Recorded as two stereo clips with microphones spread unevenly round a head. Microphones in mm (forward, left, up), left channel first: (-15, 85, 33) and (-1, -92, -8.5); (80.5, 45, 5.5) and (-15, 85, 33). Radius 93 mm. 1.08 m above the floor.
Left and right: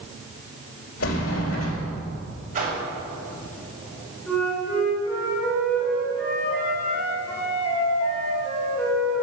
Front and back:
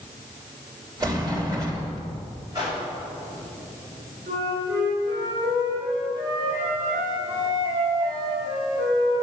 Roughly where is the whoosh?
Behind right.